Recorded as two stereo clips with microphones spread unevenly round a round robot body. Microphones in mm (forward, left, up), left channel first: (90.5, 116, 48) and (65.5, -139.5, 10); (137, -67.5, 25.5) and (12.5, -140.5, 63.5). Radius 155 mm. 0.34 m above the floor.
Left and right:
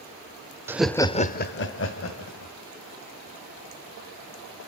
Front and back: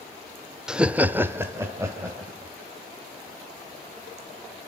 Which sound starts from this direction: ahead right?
Laughter, at 0.7 s.